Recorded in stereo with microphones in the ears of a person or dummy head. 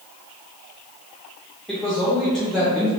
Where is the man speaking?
5° left (ahead or behind), 0.7 m.